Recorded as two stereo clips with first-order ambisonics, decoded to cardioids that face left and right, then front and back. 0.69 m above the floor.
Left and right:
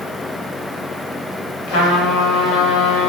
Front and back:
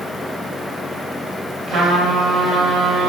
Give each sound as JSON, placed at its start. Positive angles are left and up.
{"t": 1.7, "sound": "a trumpet", "azimuth_deg": 95, "distance_m": 4.0}